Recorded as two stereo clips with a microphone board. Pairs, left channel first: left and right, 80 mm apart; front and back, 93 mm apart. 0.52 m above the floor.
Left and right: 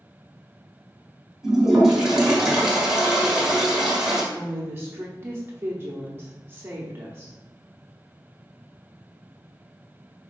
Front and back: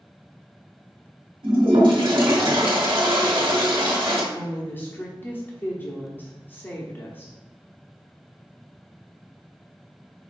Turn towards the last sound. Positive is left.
turn(degrees=-50)